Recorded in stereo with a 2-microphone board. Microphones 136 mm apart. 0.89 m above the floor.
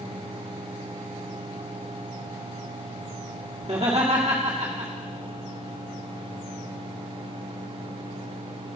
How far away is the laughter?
About 1.9 m.